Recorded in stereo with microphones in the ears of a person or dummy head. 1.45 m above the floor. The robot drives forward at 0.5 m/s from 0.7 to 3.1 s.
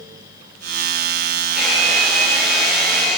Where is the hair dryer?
5° right (ahead or behind), 2.5 m.